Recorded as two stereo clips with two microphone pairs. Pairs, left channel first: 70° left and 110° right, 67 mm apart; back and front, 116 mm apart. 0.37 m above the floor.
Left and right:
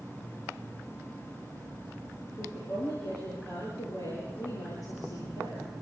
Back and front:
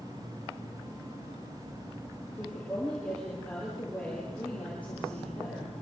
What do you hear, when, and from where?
2.3 s a woman speaking: 100° left, 7 m